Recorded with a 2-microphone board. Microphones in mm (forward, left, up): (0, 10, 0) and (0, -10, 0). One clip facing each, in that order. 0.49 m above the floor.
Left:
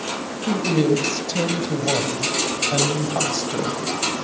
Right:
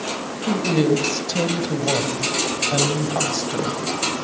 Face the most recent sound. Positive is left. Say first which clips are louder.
# even
turn(degrees=-15)  # may be behind; listen again after turning